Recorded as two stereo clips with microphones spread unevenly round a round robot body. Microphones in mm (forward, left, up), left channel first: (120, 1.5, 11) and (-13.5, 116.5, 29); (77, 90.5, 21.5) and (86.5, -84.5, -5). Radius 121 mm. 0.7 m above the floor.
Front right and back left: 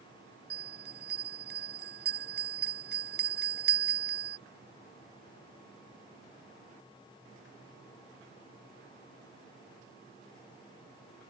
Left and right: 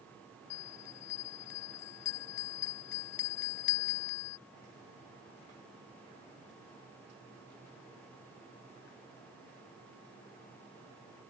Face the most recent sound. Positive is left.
turn(degrees=125)